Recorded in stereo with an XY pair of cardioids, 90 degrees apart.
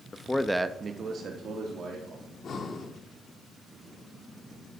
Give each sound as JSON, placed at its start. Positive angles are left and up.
{"t": 0.1, "sound": "a man speaking", "azimuth_deg": 30, "distance_m": 0.6}
{"t": 2.2, "sound": "breathing", "azimuth_deg": 60, "distance_m": 1.1}